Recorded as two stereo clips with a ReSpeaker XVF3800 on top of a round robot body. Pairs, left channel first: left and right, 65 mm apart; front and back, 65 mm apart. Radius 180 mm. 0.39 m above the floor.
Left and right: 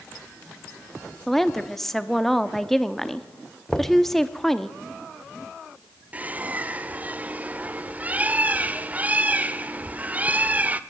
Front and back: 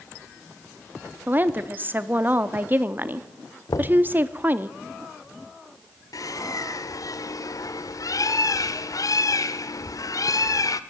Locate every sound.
1.3 s a woman speaking: 170° left, 1.1 m
3.7 s knocking: 10° left, 1.4 m
6.1 s a bird: 25° right, 1.0 m